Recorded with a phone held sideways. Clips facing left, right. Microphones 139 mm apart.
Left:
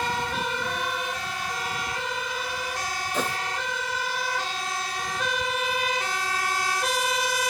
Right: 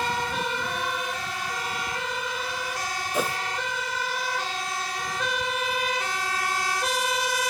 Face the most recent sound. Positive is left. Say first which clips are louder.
# right 2 dB
turn(degrees=-10)  # may be behind; listen again after turning